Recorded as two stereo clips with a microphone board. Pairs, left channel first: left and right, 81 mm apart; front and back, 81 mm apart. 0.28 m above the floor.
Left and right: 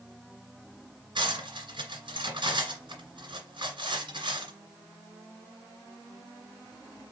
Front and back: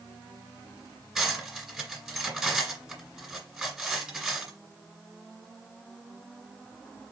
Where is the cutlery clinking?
95° right, 2 m.